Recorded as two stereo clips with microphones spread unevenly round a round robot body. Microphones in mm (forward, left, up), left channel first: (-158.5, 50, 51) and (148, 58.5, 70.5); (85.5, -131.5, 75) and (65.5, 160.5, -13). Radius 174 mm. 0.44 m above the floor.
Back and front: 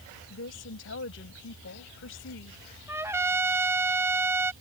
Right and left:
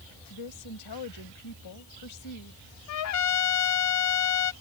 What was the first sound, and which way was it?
A woman speaking, 130° right.